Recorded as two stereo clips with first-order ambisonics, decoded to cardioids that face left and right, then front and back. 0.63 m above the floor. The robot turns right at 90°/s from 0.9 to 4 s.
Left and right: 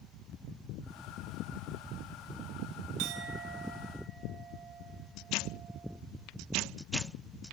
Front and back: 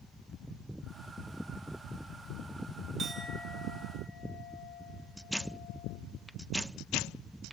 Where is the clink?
115° right, 3.5 m; by 6.0 s 25° right, 3.5 m.